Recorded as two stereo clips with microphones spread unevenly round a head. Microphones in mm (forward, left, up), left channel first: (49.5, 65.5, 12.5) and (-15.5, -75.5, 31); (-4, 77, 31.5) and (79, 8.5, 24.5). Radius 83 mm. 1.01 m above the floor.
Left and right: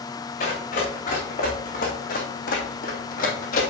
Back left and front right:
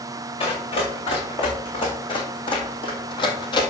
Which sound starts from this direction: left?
Running footsteps, at 0.4 s.